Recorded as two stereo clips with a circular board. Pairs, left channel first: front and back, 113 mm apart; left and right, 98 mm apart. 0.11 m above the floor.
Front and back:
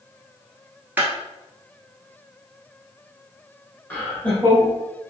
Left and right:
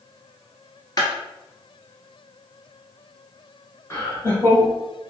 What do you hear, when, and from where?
1.0 s a clap: 110° left, 1.2 m
3.9 s laughter: 65° left, 1.7 m